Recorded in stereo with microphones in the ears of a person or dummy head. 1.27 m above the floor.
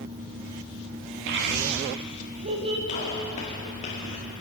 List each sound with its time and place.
1.3 s a child speaking: 65° right (ahead or behind), 1.3 m; by 2.8 s 30° right (ahead or behind), 1.6 m
2.9 s a gunshot: 30° left (ahead or behind), 2 m